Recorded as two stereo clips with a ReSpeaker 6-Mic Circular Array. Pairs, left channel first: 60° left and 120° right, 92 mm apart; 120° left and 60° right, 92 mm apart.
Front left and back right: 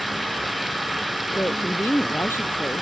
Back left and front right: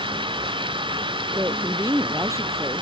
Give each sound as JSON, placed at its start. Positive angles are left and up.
{"t": 0.0, "sound": "running water", "azimuth_deg": -30}
{"t": 1.4, "sound": "a woman speaking", "azimuth_deg": -5}